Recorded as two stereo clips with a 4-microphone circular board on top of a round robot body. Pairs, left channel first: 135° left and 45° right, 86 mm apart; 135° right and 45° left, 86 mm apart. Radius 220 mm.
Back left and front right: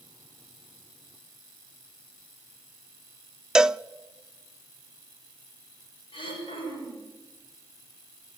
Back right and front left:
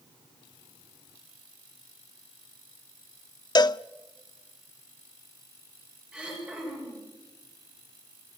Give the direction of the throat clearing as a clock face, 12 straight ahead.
8 o'clock.